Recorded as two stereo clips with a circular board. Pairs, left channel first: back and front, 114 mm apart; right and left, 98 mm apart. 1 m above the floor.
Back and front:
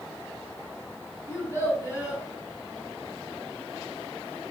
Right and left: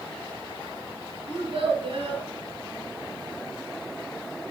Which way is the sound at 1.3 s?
115° left.